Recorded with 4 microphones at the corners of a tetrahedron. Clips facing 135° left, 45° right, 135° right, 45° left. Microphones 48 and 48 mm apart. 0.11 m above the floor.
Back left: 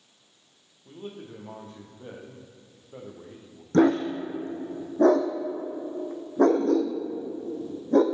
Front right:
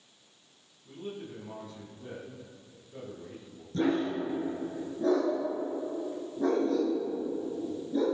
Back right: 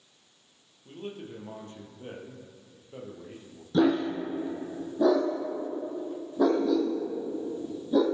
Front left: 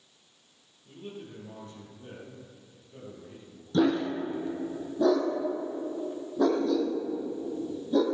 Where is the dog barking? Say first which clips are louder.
Back left 7 dB, back right 1 dB; 145° left, 2.5 m.